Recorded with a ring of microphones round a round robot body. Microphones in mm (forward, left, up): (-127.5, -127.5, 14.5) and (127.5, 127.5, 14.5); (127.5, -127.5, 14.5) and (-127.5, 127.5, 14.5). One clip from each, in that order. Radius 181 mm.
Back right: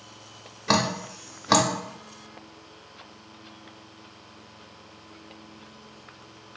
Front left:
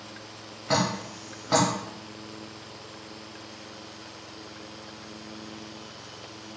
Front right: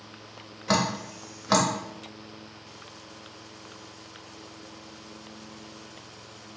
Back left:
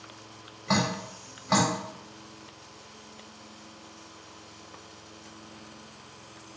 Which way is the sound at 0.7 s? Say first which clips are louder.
Back right 2 dB, front right 2 dB; 105° right.